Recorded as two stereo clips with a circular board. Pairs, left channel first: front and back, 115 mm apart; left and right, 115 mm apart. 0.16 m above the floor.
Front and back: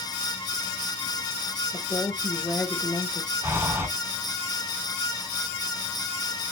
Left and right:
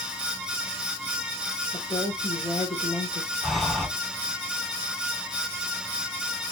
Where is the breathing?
Straight behind, 1.4 m.